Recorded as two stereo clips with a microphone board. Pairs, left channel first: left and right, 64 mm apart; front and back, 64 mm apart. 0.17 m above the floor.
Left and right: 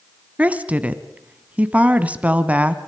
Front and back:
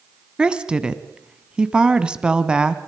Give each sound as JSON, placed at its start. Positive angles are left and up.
{"t": 0.4, "sound": "a woman speaking", "azimuth_deg": -125, "distance_m": 1.2}